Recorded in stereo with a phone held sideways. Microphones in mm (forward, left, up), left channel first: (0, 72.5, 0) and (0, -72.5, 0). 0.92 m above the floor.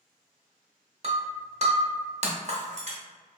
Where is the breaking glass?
50° right (ahead or behind), 0.9 m.